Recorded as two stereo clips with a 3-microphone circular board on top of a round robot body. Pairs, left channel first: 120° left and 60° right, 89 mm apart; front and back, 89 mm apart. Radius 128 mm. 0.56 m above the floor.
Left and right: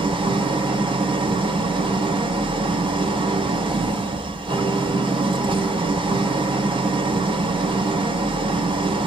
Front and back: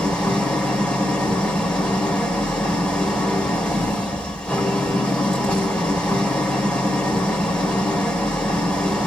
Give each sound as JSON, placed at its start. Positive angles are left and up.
{"t": 0.0, "sound": "an engine running", "azimuth_deg": -75, "distance_m": 3.0}